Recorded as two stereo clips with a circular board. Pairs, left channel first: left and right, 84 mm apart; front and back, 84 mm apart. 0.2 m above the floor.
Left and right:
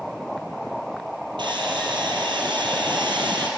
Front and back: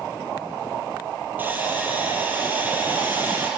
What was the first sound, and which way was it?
Sawing, 115° right.